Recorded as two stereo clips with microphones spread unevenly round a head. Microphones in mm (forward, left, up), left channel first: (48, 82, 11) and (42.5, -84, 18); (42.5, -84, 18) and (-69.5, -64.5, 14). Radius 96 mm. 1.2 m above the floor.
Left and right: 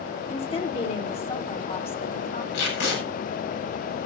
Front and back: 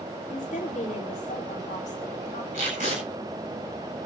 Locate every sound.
0.3 s a woman speaking: 35° left, 4 m
2.5 s tape being pulled: 125° left, 8.5 m